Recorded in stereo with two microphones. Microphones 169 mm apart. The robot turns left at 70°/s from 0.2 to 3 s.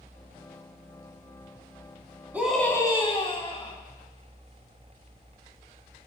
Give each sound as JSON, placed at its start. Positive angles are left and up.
{"t": 2.3, "sound": "a scream", "azimuth_deg": -170, "distance_m": 3.5}